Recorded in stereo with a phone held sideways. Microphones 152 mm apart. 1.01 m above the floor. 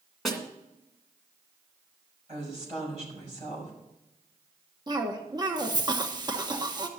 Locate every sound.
0.2 s a snare drum: centre (ahead or behind), 2 m
2.3 s a woman speaking: 50° right (ahead or behind), 5 m
4.9 s a cough: 30° right (ahead or behind), 1.0 m